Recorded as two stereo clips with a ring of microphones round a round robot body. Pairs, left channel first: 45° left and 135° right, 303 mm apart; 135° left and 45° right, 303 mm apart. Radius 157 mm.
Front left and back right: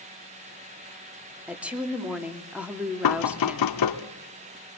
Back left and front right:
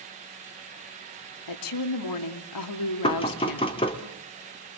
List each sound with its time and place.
1.5 s a woman speaking: 140° left, 2.5 m
3.0 s knocking: 60° left, 1.9 m